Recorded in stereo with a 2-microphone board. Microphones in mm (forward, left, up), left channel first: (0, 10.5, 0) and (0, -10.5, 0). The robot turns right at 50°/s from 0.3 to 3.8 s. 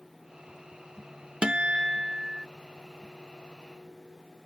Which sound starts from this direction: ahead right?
A guitar, at 1.4 s.